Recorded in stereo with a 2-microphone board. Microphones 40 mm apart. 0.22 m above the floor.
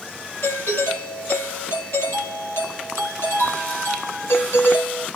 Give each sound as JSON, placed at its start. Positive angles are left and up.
{"t": 0.4, "sound": "a doorbell", "side_deg": 75, "distance_m": 8.5}